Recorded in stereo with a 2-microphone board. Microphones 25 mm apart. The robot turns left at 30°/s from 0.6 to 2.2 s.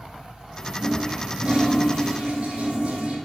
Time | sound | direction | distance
0.8 | a toilet flushing | 30° right | 2.5 m